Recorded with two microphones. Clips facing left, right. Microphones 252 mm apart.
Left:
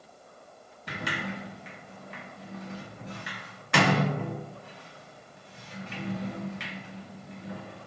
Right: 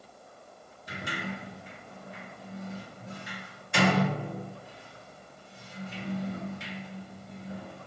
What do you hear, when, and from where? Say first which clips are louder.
0.9 s a sliding door: left 2 dB; 75° left (ahead or behind), 0.7 m